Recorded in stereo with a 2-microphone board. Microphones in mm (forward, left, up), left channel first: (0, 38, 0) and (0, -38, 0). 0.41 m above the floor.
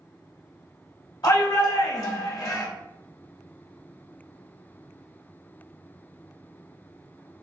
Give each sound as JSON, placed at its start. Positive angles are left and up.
{"t": 1.2, "sound": "a shout", "side_deg": 60, "distance_m": 1.9}